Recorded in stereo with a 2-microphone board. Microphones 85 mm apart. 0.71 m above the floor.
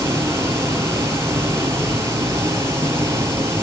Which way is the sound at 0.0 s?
35° right (ahead or behind).